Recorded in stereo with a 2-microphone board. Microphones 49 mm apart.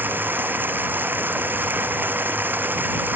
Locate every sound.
0.0 s running water: 45° right (ahead or behind)